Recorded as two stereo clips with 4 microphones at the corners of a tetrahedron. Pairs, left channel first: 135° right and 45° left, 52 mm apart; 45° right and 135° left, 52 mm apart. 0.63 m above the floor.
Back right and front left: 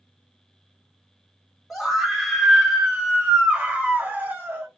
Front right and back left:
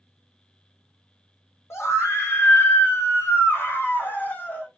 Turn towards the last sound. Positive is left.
turn(degrees=5)